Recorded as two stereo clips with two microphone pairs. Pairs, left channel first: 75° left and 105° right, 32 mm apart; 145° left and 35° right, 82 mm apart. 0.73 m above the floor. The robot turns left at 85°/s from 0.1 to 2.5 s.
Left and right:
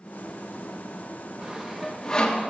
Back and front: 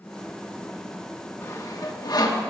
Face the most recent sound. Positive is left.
turn(degrees=110)